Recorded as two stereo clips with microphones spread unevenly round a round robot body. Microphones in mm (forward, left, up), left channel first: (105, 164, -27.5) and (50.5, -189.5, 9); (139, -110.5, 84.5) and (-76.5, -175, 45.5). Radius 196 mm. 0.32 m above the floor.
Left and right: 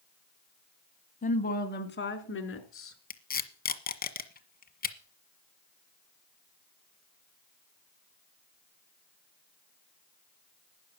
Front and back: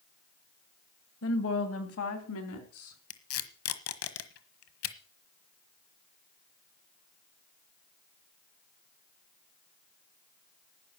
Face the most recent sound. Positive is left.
turn(degrees=20)